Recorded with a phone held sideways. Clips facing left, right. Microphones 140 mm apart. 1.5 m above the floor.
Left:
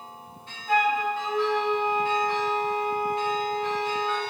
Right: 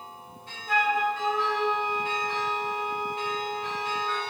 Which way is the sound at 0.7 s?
40° right (ahead or behind).